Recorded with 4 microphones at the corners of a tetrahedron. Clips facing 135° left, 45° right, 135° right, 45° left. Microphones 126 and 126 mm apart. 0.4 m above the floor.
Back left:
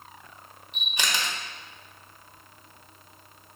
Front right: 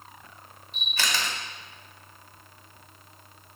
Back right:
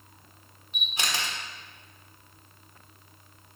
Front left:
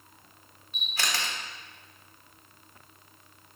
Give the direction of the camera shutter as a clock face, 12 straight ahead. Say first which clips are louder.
Even, even; 6 o'clock.